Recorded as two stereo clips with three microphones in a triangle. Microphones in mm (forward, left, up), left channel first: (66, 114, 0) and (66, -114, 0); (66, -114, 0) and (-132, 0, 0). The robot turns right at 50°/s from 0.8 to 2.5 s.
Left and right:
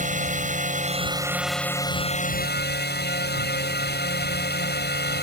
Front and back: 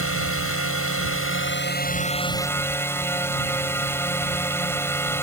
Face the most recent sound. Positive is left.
turn(degrees=50)